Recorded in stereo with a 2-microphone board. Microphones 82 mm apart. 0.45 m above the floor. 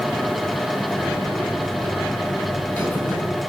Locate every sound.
0.9 s a buzzer: 25° left (ahead or behind), 8.5 m